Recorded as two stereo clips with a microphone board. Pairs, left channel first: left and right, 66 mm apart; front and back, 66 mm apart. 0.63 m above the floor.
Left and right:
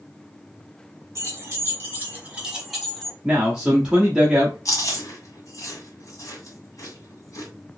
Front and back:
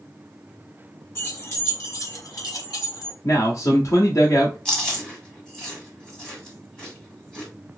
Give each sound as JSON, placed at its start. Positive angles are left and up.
{"t": 1.1, "sound": "keys jangling", "azimuth_deg": -45, "distance_m": 1.8}
{"t": 3.2, "sound": "a man speaking", "azimuth_deg": -15, "distance_m": 0.9}
{"t": 4.7, "sound": "chewing", "azimuth_deg": 80, "distance_m": 2.0}